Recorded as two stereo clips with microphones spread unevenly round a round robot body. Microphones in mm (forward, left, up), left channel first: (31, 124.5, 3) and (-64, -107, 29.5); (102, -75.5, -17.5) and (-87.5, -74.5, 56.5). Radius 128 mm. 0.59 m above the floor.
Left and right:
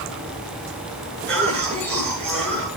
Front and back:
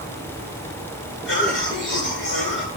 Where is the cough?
20° right, 9 m.